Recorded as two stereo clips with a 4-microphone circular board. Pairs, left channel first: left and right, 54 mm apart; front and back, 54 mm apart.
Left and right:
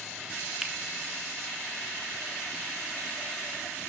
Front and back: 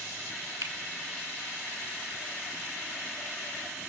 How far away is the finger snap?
About 1.9 m.